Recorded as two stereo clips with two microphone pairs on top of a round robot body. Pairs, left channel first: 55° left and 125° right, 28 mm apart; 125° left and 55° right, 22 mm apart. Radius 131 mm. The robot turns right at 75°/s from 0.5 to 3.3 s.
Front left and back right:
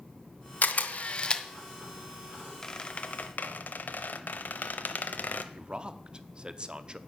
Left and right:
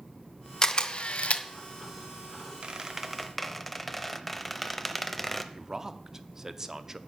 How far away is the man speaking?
About 0.9 m.